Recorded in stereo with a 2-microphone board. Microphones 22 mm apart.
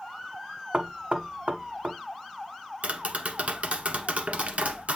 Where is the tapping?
65° right (ahead or behind), 1.0 m.